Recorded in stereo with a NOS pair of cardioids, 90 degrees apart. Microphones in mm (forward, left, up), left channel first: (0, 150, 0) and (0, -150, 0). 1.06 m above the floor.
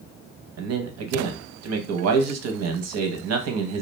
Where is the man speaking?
55° right, 0.8 m.